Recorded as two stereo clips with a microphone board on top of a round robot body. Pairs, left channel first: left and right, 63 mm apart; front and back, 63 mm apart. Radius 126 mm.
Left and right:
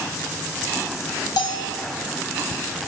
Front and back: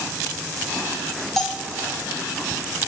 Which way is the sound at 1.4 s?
85° left.